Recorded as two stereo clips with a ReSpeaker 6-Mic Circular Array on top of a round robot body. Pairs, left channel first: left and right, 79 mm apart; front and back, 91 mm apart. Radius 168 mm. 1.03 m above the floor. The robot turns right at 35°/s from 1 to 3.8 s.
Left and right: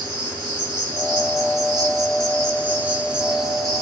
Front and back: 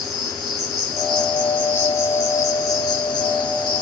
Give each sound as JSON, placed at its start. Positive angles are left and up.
{"t": 0.0, "sound": "an insect", "azimuth_deg": -90, "distance_m": 2.5}